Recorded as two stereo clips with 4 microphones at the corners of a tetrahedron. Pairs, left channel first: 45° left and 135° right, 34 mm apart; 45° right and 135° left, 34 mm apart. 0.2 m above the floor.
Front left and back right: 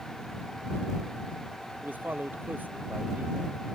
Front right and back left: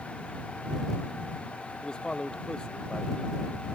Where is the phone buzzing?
I don't hear a phone buzzing.